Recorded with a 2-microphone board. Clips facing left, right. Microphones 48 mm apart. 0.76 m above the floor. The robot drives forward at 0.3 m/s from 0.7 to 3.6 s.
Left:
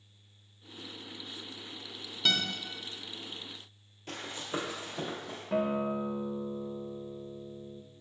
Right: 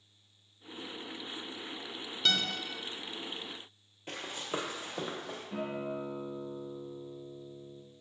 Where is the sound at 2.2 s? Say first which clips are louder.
Left 1 dB; centre (ahead or behind), 0.8 m.